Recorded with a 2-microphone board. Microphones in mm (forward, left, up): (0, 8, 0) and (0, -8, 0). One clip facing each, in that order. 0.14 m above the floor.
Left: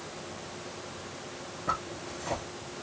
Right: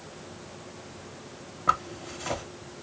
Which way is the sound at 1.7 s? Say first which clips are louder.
Right 7 dB; 40° right (ahead or behind).